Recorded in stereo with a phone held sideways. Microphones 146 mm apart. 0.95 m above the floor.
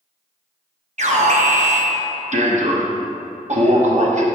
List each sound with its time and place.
1.0 s an alarm: 55° right (ahead or behind), 0.8 m